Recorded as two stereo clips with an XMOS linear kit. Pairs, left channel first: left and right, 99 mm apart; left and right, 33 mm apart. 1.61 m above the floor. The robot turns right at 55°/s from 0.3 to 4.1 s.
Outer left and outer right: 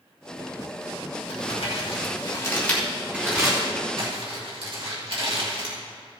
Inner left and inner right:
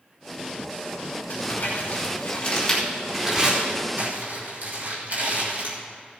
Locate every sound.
1.3 s crumpling: 90° left, 3 m; by 5.8 s 65° right (ahead or behind), 3 m